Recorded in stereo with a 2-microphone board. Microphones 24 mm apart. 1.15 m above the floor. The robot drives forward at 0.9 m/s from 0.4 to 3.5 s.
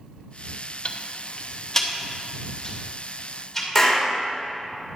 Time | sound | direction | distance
0.8 | ticking | 40° left (ahead or behind) | 0.6 m
3.8 | a clap | 10° left (ahead or behind) | 3 m